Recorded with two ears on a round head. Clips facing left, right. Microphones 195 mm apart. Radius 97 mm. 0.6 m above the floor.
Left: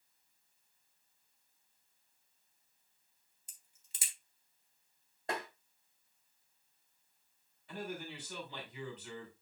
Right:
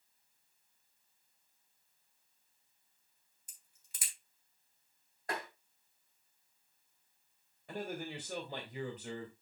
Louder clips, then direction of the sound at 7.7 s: Right 2 dB; 40° right (ahead or behind).